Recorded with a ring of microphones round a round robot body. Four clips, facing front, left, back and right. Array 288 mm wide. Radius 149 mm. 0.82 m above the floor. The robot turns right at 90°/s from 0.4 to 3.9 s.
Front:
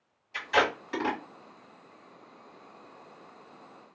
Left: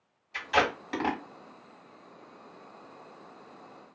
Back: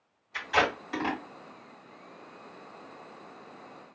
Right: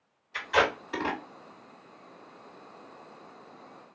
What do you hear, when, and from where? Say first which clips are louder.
0.3 s tape being pulled: right 1 dB, front 1 dB; 40° left, 2 m; by 1.2 s 110° left, 2 m